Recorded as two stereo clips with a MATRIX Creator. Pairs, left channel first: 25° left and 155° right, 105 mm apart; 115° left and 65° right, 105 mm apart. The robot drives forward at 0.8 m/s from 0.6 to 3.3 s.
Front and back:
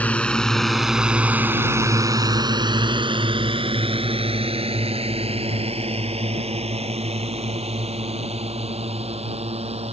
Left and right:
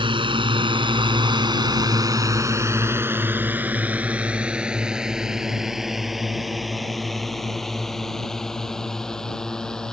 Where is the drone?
50° right; by 9.9 s 165° right.